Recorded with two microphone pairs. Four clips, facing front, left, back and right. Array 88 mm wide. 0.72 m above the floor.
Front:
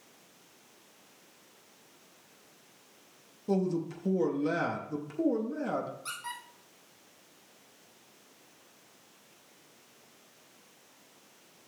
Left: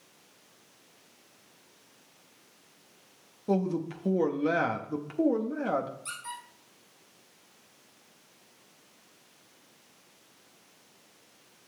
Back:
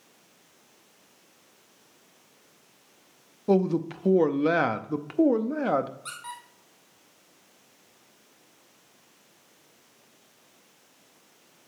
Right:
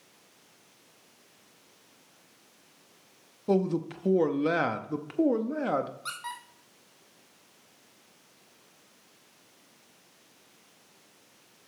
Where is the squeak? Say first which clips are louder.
Right 2 dB, back 1 dB; 100° right, 2 m.